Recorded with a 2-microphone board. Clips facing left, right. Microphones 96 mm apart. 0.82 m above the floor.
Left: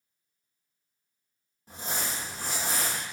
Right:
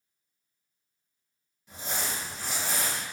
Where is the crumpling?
40° left (ahead or behind), 0.9 m.